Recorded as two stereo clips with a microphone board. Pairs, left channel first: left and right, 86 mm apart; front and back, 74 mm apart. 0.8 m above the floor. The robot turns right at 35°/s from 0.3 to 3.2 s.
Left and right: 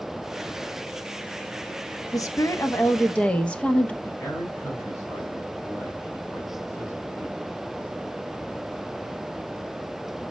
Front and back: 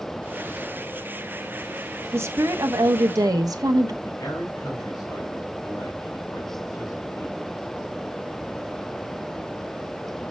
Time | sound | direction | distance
2.1 | a woman speaking | 125° left | 0.7 m
4.0 | a man speaking | 35° left | 3.5 m